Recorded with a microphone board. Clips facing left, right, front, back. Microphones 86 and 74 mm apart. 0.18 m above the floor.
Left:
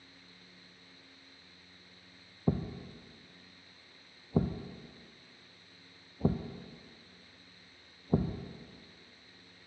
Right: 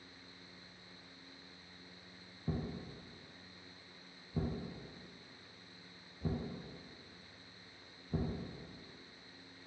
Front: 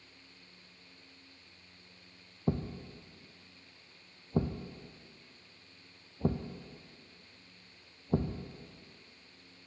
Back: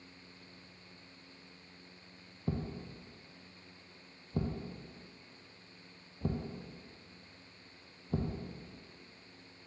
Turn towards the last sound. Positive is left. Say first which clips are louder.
# left 7 dB, front 4 dB
turn(degrees=60)